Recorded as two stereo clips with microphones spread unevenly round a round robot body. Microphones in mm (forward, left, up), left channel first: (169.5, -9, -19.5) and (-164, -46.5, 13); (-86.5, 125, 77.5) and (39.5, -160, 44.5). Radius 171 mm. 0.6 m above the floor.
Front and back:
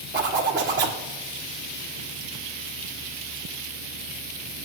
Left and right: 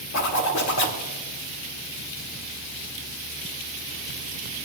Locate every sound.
0.1 s a zipper: 130° left, 1.8 m